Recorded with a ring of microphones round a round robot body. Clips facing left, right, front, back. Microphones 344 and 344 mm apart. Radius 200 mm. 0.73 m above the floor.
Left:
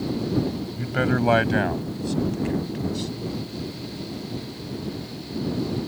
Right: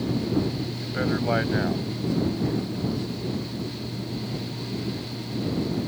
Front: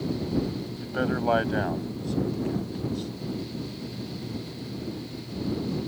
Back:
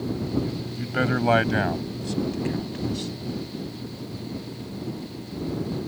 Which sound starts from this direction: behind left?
A man speaking, at 0.8 s.